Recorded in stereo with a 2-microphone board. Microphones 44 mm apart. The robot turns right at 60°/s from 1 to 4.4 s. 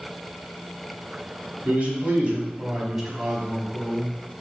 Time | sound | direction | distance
1.6 | a man speaking | 100° right | 1.2 m